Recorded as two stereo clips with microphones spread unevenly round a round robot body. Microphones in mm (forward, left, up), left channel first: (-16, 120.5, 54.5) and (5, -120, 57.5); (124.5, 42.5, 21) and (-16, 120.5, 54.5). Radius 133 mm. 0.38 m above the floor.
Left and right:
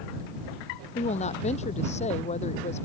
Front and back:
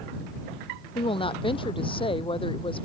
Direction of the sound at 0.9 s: 30° left.